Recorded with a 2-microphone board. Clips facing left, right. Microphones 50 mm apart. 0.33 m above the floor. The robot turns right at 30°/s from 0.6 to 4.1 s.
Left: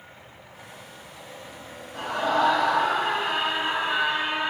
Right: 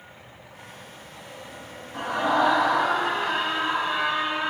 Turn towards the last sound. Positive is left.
turn(degrees=35)